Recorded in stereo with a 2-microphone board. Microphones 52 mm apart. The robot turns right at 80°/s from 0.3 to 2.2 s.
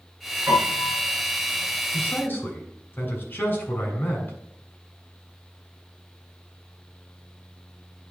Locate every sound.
0.5 s a piano: 110° right, 5 m; by 1.0 s 65° right, 5 m
1.9 s a man speaking: 15° left (ahead or behind), 2.5 m; by 4.3 s 35° left (ahead or behind), 2.5 m